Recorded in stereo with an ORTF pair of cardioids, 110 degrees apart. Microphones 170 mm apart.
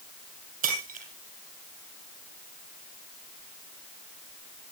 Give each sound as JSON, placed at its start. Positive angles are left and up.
{"t": 0.6, "sound": "breaking glass", "azimuth_deg": -60, "distance_m": 6.5}